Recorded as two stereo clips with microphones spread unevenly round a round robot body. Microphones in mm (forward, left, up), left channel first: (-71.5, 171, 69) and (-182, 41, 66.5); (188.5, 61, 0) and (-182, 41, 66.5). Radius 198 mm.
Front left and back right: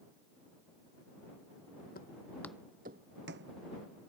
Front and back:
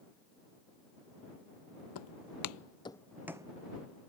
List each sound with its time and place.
1.9 s footsteps: 35° left; by 3.5 s 100° right